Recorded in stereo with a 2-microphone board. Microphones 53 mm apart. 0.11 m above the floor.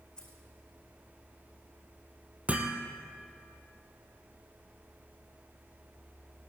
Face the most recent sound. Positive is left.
turn(degrees=-25)  # may be behind; listen again after turning